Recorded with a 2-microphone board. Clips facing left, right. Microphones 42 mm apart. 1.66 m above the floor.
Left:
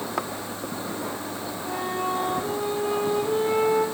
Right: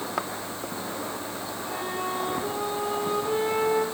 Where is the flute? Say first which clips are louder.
Left 4 dB; 15° right (ahead or behind), 3 m.